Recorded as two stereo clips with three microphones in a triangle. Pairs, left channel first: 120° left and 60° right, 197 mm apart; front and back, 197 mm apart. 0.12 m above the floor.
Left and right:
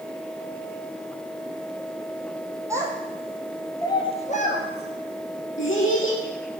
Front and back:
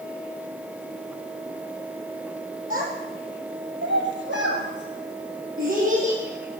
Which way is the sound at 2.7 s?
135° right.